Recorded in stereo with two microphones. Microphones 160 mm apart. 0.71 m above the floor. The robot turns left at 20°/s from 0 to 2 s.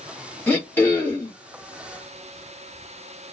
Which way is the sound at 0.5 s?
10° left (ahead or behind).